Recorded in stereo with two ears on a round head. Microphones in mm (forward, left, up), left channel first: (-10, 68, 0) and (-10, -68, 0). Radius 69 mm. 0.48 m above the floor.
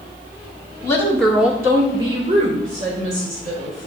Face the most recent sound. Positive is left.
turn(degrees=-50)  # may be behind; listen again after turning